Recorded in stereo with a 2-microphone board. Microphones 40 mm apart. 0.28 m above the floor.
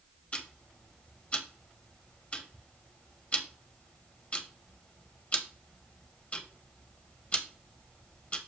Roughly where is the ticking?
Left.